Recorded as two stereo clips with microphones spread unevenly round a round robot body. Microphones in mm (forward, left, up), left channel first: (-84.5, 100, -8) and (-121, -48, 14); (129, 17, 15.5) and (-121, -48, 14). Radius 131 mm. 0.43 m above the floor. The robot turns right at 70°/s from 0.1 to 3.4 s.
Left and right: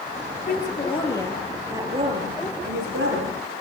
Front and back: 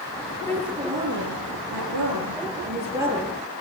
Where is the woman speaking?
95° left, 9 m; by 3.4 s 60° right, 9 m.